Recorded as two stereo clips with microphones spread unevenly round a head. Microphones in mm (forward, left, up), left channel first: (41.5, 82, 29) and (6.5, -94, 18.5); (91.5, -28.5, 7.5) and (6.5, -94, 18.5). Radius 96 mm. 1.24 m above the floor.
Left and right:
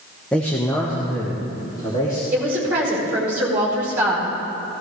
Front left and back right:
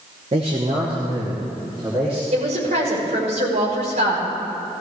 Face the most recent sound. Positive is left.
turn(degrees=175)